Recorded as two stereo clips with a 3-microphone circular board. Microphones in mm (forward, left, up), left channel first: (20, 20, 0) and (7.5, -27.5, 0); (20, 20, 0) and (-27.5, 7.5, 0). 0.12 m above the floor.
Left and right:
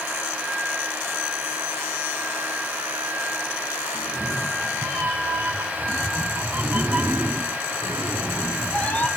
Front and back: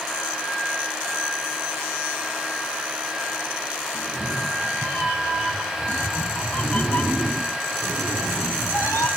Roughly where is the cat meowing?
Right.